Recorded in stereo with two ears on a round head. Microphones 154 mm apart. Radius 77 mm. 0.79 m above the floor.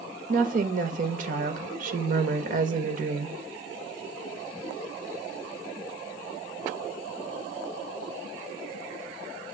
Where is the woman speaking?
50° right (ahead or behind), 0.8 m.